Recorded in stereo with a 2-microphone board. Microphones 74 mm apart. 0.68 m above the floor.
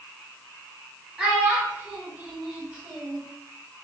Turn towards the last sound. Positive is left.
turn(degrees=-15)  # may be behind; listen again after turning